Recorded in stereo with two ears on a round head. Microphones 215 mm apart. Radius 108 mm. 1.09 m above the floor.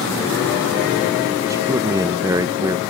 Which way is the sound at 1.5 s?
15° right (ahead or behind).